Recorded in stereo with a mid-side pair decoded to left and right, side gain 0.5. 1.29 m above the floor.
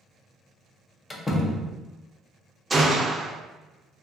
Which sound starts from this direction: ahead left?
A door slam, at 1.1 s.